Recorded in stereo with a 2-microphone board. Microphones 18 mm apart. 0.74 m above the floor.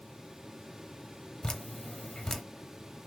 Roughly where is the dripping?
Left.